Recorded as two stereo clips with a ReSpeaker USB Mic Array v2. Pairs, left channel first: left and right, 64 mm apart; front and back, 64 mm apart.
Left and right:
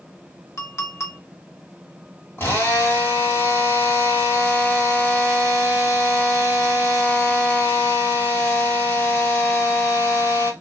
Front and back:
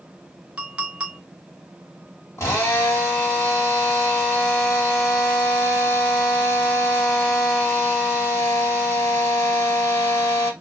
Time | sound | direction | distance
0.6 | a clink | 110° left | 0.8 m
2.4 | a drill | 40° left | 1.5 m